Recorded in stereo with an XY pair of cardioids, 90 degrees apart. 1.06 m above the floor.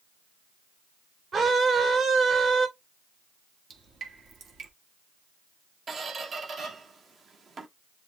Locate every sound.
1.3 s a scream: 55° right, 2.5 m
3.7 s dripping: 60° right, 1.6 m
5.9 s a squeak: 55° right, 1.3 m